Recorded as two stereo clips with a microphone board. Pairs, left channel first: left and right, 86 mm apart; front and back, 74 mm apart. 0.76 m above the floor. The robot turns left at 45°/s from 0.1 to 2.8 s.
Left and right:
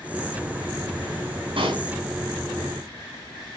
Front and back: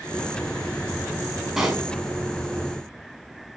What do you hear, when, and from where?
1.6 s a pop: 95° right, 5.5 m; by 1.9 s 105° right, 5.5 m